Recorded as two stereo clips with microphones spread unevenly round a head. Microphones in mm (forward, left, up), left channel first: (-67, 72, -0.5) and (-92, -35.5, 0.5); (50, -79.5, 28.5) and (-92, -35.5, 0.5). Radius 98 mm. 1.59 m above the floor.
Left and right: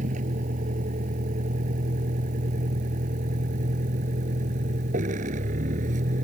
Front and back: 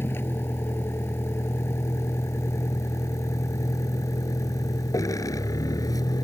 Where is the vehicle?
90° right; by 6.2 s 80° right.